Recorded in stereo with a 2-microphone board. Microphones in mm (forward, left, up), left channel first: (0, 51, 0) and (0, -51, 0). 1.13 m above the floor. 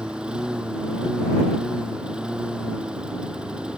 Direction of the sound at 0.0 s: 10° right (ahead or behind).